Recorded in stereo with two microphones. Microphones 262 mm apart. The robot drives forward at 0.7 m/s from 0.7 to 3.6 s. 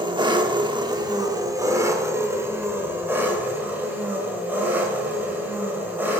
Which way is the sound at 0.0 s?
15° right (ahead or behind).